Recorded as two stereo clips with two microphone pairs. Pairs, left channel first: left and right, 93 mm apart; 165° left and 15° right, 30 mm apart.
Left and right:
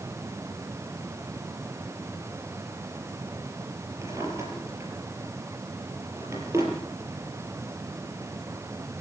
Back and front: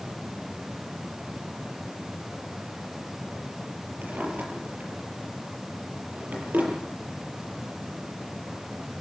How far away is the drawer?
About 6.5 m.